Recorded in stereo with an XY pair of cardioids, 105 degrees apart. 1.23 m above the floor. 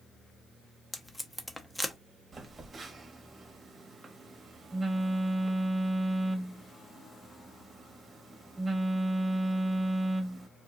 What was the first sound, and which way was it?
Tape being pulled, 10° left.